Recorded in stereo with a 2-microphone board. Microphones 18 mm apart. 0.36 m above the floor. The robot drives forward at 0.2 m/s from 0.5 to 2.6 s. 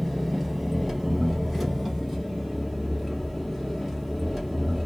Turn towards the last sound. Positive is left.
turn(degrees=-10)  # may be behind; listen again after turning